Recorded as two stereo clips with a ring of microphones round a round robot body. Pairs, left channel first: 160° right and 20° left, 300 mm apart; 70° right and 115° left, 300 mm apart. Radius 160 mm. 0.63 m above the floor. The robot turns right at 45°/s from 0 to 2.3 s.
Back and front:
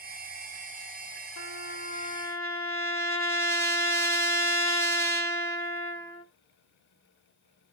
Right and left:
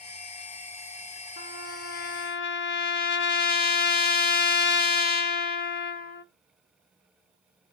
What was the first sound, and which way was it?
A trumpet, 120° right.